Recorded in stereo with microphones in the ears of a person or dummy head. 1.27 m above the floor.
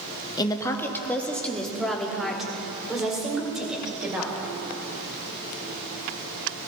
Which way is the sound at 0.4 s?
25° left (ahead or behind).